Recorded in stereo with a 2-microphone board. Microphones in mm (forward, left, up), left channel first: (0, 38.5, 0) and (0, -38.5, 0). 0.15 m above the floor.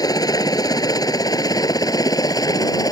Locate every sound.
0.0 s a helicopter: 55° left (ahead or behind)